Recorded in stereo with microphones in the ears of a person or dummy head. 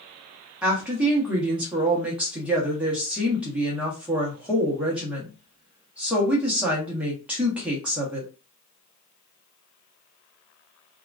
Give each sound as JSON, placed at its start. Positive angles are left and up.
{"t": 0.6, "sound": "a woman speaking", "side_deg": -5, "distance_m": 1.1}